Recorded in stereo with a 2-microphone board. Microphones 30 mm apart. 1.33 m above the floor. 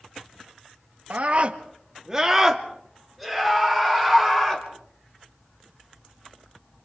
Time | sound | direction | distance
1.1 | a scream | 50° right (ahead or behind) | 1.3 m